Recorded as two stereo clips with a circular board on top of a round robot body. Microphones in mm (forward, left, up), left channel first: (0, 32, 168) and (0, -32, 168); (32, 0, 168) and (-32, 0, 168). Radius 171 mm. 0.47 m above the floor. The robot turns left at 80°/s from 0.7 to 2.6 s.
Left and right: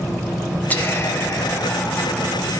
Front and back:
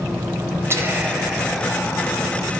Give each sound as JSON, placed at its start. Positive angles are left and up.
{"t": 0.7, "sound": "whispering", "azimuth_deg": 150, "distance_m": 1.3}